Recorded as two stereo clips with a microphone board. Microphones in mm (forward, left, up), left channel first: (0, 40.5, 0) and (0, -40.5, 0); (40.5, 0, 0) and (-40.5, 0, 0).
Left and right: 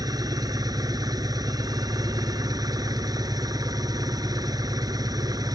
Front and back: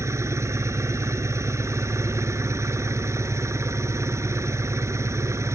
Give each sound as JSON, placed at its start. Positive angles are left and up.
{"t": 0.0, "sound": "an engine running", "azimuth_deg": -130}